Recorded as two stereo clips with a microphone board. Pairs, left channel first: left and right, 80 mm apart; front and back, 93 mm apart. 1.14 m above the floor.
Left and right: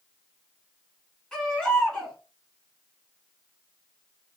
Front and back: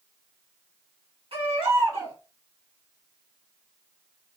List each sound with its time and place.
1.3 s a baby crying: 175° left, 1.6 m